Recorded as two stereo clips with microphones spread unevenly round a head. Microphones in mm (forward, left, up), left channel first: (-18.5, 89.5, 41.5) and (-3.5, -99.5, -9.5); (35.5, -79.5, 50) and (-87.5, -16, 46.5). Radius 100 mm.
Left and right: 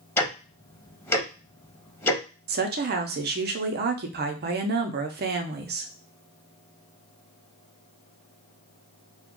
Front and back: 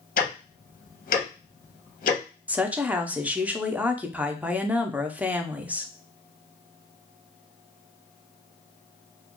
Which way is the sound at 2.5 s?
125° right.